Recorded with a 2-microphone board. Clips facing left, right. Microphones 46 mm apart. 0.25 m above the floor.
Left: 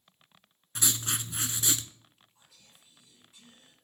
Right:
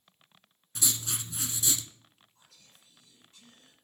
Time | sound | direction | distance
0.8 | writing | 55° left (ahead or behind) | 0.6 m
2.4 | whispering | 10° left (ahead or behind) | 4.5 m